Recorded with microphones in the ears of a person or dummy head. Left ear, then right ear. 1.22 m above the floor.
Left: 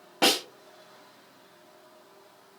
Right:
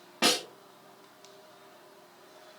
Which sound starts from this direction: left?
A snare drum, at 0.2 s.